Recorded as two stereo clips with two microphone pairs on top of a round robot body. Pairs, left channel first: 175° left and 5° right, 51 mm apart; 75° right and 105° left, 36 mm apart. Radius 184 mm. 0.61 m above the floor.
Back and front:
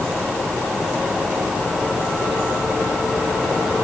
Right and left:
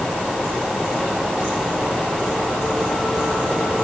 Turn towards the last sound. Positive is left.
No sound to turn to.